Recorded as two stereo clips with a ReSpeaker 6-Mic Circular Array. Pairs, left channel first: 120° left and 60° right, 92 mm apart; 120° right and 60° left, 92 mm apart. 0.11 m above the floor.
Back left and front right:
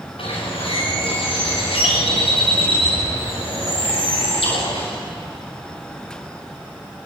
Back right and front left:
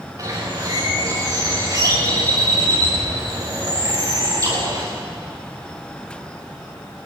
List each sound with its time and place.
0.2 s a bird: 110° left, 8 m